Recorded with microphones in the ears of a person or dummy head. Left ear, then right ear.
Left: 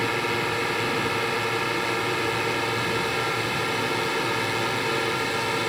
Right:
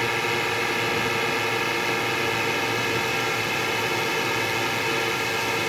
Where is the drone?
20° right (ahead or behind); by 5.7 s 10° right (ahead or behind).